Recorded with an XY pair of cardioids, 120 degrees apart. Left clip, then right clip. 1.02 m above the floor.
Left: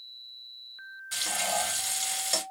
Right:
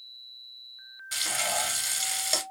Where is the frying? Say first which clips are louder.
Right 1 dB; 25° right, 1.5 m.